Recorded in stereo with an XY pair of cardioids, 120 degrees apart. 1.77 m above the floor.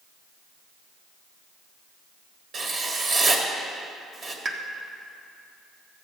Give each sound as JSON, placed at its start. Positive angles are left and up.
{"t": 2.5, "sound": "writing", "azimuth_deg": -40, "distance_m": 1.8}
{"t": 4.5, "sound": "a pop", "azimuth_deg": -25, "distance_m": 1.0}